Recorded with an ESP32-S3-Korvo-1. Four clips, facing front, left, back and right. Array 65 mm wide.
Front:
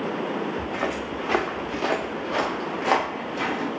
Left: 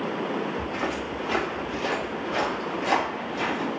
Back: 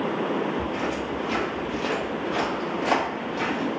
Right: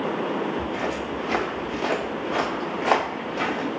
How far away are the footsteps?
About 1.1 m.